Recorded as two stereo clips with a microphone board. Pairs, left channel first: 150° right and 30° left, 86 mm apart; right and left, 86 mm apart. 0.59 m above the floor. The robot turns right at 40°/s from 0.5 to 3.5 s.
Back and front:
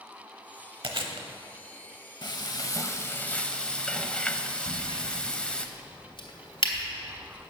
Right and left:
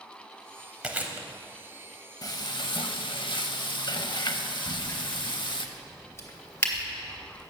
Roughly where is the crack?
Behind right.